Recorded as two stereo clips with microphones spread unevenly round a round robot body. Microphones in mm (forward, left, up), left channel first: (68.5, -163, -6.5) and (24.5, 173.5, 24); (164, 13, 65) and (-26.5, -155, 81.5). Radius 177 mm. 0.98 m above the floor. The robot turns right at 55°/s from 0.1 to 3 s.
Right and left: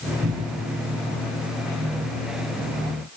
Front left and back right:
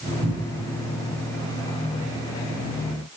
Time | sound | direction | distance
0.2 | a cupboard door | 160° left | 8.5 m